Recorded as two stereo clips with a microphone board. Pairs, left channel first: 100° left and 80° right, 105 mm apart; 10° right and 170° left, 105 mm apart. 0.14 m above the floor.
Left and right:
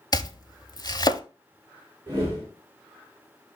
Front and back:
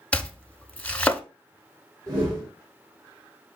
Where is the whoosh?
145° right, 4.5 m.